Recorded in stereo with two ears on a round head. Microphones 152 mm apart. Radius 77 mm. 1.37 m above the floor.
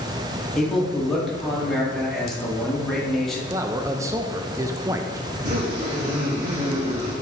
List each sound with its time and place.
0.6 s a man speaking: centre (ahead or behind), 1.9 m
3.5 s a man speaking: 20° right (ahead or behind), 0.6 m
5.3 s a zipper: 50° right (ahead or behind), 3 m